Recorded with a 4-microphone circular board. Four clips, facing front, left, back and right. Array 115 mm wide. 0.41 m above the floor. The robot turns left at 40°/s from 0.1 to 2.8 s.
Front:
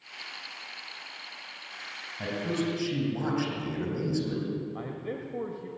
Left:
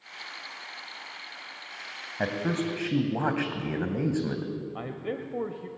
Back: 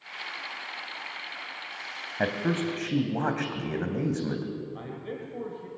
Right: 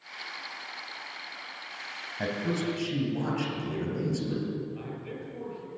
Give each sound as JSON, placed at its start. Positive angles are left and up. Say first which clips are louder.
{"t": 2.2, "sound": "a man speaking", "louder": "left 2 dB, back 3 dB", "azimuth_deg": 150, "distance_m": 2.5}
{"t": 4.8, "sound": "a man speaking", "louder": "left 5 dB, front 1 dB", "azimuth_deg": 80, "distance_m": 1.4}